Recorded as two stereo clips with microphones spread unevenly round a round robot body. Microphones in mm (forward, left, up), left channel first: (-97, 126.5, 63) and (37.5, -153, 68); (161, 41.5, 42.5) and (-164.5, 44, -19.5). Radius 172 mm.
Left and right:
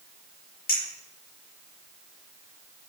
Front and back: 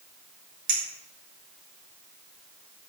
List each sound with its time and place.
0.7 s a clink: straight behind, 4.5 m